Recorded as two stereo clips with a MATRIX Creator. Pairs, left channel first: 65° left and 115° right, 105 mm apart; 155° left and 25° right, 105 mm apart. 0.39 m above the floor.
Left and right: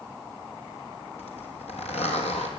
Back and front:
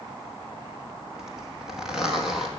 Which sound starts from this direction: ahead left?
A zipper, at 1.2 s.